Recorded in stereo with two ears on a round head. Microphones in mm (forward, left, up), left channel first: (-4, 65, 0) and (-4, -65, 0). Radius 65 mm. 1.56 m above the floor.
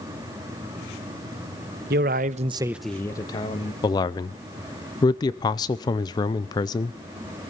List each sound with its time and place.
1.9 s a man speaking: 70° right (ahead or behind), 1.2 m; by 3.7 s 35° left (ahead or behind), 1.8 m
3.8 s a man speaking: 25° left (ahead or behind), 0.6 m